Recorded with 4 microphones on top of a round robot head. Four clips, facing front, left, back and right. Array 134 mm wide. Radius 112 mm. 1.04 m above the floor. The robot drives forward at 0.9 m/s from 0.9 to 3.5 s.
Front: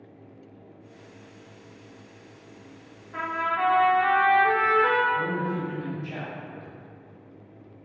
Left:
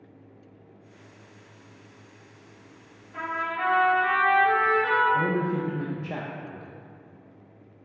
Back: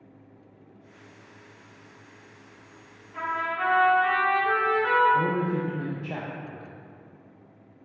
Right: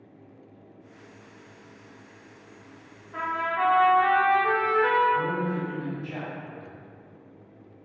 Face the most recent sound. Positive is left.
turn(degrees=125)